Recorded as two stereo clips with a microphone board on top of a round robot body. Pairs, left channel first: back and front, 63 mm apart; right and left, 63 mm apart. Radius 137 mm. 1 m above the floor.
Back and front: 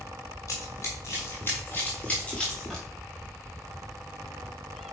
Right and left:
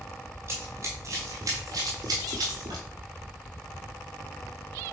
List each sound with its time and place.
0.5 s running footsteps: 145° left, 1.9 m; by 2.9 s 95° left, 1.5 m